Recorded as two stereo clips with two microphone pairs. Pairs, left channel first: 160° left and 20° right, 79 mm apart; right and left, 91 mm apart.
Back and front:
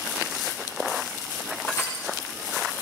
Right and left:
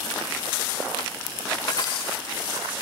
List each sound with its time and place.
1.7 s crushing: 140° right, 8.5 m